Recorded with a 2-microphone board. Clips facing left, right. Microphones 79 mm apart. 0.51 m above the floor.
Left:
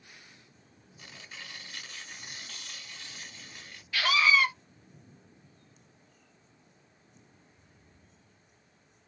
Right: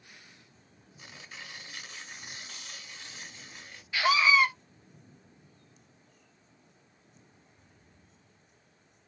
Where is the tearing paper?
15° right (ahead or behind), 1.0 m.